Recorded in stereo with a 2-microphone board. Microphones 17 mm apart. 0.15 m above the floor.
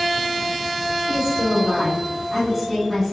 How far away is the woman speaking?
About 1.6 m.